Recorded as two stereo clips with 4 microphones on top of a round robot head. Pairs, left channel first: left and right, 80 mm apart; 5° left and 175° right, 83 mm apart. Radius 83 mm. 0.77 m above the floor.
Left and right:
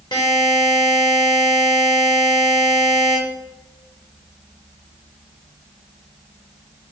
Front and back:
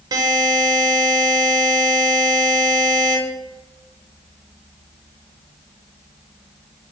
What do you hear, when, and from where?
0.1 s a buzzer: 145° left, 0.7 m